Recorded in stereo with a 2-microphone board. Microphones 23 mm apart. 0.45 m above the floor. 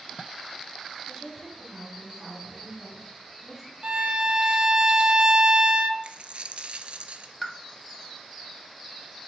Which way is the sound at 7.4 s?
5° right (ahead or behind).